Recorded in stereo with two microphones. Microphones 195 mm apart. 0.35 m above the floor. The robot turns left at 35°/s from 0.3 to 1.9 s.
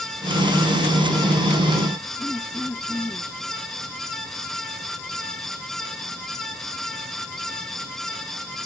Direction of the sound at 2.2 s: 5° left (ahead or behind).